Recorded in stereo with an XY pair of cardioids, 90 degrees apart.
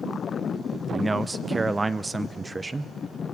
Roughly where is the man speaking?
Ahead right.